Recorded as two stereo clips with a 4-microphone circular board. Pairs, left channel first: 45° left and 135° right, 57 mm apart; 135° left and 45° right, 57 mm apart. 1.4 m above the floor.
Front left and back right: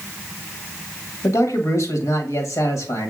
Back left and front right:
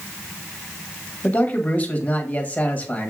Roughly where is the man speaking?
Left.